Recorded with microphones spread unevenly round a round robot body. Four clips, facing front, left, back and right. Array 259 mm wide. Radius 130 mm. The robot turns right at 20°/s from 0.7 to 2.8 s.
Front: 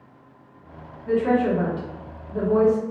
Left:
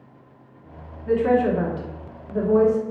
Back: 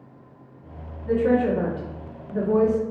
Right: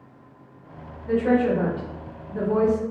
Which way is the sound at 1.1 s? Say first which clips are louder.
Left 1 dB, even; 75° left.